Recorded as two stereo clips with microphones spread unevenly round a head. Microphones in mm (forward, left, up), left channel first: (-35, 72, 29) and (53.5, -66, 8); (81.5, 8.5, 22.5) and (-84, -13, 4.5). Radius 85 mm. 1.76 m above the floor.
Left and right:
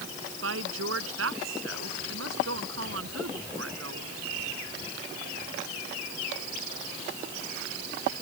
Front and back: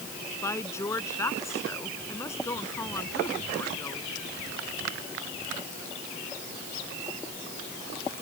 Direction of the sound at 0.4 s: 65° right.